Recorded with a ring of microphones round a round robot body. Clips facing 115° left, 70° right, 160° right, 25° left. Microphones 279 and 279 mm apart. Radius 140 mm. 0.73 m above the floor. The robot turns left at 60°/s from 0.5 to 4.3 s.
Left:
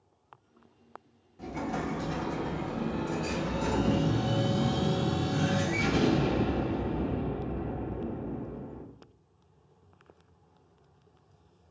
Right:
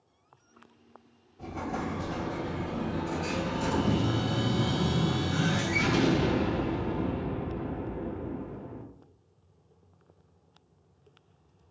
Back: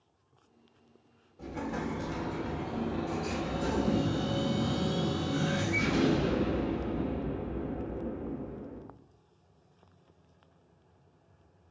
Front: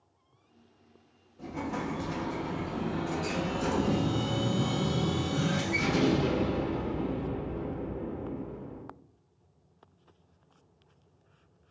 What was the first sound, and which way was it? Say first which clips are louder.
An explosion: left 1 dB, front 1 dB; 105° left.